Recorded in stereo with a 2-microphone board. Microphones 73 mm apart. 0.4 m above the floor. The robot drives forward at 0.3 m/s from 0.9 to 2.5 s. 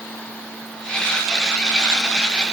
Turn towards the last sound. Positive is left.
No sound to turn to.